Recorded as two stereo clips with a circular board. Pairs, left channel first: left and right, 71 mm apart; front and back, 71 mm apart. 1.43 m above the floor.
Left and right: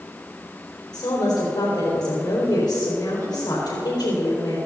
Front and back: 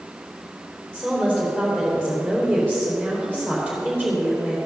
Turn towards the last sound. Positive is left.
turn(degrees=80)